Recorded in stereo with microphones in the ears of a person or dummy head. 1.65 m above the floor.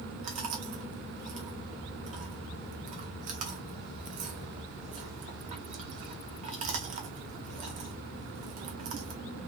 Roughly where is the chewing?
Right.